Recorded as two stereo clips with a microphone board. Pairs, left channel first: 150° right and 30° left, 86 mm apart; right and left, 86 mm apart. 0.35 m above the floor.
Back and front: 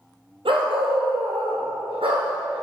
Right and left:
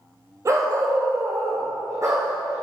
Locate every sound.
0.5 s a dog barking: 40° left, 2.5 m; by 2.6 s 35° left, 5 m